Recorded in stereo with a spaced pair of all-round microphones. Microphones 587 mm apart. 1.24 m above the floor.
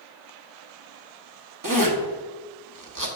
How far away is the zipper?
About 0.9 m.